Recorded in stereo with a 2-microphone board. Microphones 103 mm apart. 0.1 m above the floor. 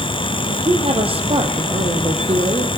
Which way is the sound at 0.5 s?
65° right (ahead or behind).